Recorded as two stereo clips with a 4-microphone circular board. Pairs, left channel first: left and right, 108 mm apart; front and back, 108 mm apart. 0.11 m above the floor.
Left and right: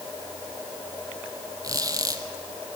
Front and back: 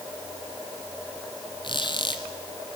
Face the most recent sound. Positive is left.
turn(degrees=-40)